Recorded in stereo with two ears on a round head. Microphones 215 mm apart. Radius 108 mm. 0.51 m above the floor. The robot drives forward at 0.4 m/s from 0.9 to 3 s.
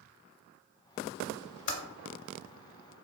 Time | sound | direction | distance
1.7 | typing on a keyboard | 50° left (ahead or behind) | 0.8 m